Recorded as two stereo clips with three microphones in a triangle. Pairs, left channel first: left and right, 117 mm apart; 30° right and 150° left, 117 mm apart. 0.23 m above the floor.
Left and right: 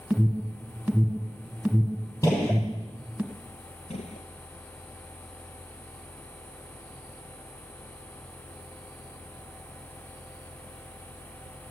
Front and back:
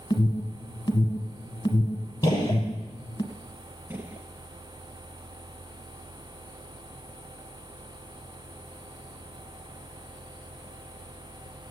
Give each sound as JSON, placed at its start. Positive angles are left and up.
{"t": 0.1, "sound": "an alarm", "azimuth_deg": -10, "distance_m": 2.0}
{"t": 2.2, "sound": "a gunshot", "azimuth_deg": 30, "distance_m": 6.5}
{"t": 3.9, "sound": "a gunshot", "azimuth_deg": 80, "distance_m": 1.4}